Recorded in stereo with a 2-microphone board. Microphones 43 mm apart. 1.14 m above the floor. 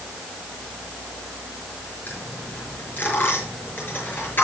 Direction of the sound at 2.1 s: 50° left (ahead or behind).